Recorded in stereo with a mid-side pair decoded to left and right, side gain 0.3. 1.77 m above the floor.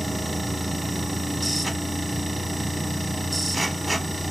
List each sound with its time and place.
0.0 s a machine running: 25° right, 0.8 m